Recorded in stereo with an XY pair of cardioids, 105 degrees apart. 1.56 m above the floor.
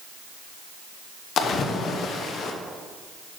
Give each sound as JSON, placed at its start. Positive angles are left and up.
{"t": 1.4, "sound": "a splash", "azimuth_deg": 60, "distance_m": 1.0}